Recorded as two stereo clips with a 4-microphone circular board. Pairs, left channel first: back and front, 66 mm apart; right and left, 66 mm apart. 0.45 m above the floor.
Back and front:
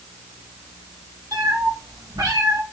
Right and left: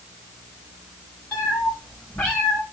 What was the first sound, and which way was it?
A cat meowing, 25° right.